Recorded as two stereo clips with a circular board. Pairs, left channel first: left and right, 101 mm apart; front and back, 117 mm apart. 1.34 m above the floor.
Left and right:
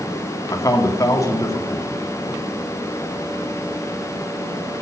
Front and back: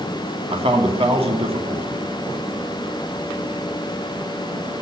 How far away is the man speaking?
About 2.5 m.